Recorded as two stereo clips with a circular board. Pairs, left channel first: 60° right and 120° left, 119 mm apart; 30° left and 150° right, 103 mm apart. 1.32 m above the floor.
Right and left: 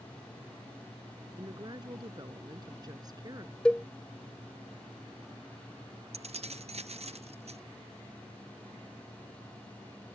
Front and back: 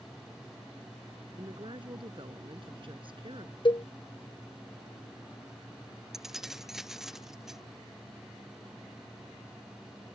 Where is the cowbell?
20° left.